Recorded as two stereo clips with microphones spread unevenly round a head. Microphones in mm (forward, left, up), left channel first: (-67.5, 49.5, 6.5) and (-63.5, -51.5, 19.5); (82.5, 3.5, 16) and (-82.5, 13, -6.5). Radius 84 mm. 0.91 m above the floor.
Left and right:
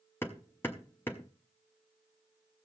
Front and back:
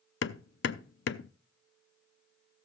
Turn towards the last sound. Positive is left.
turn(degrees=10)